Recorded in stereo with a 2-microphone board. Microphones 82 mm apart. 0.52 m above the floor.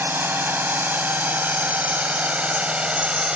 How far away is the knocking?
No knocking in this recording.